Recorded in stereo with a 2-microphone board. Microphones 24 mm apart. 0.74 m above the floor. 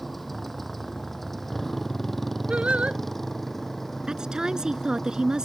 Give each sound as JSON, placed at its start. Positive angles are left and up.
{"t": 0.0, "sound": "a motorcycle", "side_deg": 5}
{"t": 2.5, "sound": "singing", "side_deg": -65}
{"t": 4.1, "sound": "a woman speaking", "side_deg": -35}